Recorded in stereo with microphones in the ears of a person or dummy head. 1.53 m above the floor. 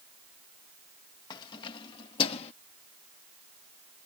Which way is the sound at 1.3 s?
25° left (ahead or behind).